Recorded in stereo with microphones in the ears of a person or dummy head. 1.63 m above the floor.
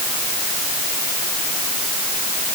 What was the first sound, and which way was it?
Only background noise.